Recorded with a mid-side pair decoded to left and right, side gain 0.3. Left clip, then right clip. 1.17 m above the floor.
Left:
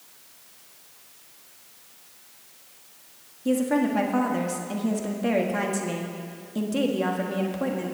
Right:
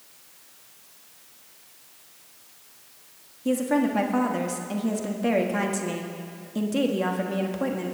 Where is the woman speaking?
15° right, 1.5 m.